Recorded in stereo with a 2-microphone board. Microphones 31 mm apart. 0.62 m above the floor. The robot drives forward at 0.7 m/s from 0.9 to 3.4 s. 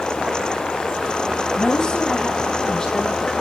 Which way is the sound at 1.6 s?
30° left (ahead or behind).